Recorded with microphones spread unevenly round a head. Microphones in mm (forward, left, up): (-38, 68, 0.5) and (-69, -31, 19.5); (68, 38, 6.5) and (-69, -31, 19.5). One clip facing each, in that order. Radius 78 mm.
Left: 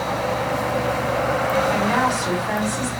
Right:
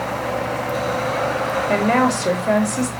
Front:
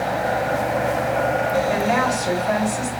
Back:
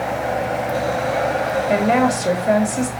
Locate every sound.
1.7 s a woman speaking: 120° right, 3 m